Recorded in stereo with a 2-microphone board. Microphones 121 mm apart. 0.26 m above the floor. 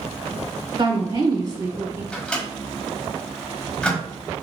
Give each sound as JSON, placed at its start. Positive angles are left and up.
{"t": 0.8, "sound": "a woman speaking", "side_deg": -45, "distance_m": 2.0}
{"t": 2.1, "sound": "a microwave", "side_deg": 5, "distance_m": 1.4}